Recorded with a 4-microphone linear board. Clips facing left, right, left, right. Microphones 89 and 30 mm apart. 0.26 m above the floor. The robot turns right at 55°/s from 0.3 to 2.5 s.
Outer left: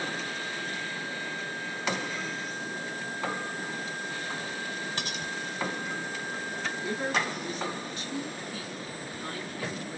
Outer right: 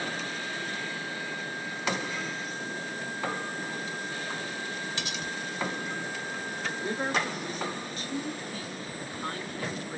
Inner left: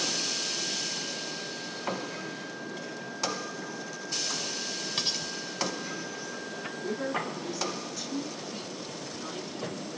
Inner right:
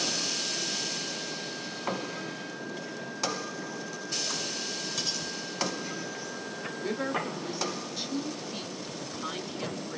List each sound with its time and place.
5.0 s cutlery clinking: 40° left (ahead or behind), 1.0 m
6.6 s a woman speaking: 35° right (ahead or behind), 1.3 m